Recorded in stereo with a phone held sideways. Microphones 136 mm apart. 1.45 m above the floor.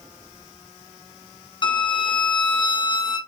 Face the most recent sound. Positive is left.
turn(degrees=35)  # may be behind; listen again after turning